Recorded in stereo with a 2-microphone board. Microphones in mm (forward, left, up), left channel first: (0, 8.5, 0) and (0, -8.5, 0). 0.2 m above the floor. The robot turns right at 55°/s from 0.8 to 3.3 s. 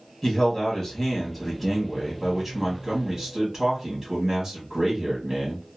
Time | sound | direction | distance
0.2 | a man speaking | 20° left (ahead or behind) | 1.4 m